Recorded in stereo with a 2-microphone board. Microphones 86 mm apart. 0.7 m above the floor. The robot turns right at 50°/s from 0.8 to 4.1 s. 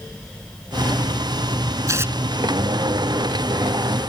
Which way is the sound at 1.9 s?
40° right (ahead or behind).